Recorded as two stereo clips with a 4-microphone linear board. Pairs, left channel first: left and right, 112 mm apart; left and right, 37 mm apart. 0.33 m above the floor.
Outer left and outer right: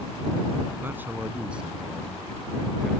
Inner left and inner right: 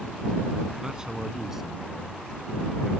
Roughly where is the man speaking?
Right.